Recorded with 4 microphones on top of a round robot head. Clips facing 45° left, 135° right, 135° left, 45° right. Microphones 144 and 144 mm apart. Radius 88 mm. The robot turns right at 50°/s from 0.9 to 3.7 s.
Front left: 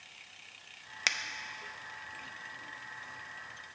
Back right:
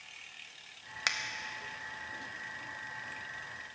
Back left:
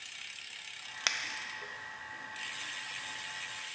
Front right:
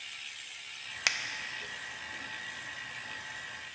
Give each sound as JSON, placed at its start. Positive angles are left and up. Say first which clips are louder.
{"t": 1.1, "sound": "a finger snap", "louder": "even, front right 1 dB", "azimuth_deg": 25, "distance_m": 0.5}